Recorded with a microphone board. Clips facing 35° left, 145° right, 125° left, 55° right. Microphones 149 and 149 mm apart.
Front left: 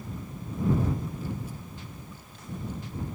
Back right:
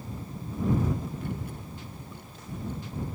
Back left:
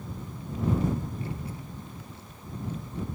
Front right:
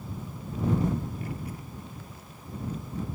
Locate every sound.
1.2 s a child speaking: 175° right